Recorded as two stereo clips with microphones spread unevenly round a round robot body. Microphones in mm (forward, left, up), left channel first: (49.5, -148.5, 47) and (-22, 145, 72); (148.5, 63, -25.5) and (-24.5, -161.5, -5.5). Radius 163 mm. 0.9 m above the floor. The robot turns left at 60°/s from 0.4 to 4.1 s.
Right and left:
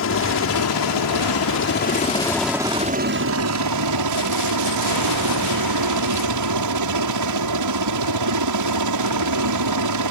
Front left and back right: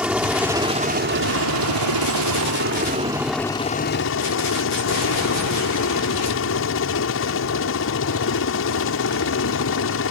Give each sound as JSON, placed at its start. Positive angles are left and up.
{"t": 0.0, "sound": "a helicopter", "azimuth_deg": -40}